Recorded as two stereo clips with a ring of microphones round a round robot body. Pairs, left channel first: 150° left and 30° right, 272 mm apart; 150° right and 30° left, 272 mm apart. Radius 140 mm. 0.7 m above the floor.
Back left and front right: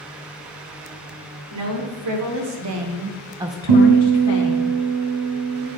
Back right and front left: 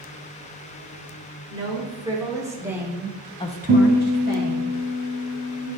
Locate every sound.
1.5 s a woman speaking: 45° right, 2.5 m; by 4.7 s 150° left, 1.5 m
3.7 s a guitar: 35° right, 3 m